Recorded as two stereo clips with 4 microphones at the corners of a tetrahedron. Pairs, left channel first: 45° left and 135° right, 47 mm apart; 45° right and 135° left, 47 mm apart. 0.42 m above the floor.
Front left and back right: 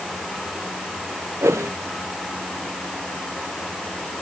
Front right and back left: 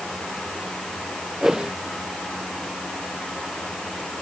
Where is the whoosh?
150° right.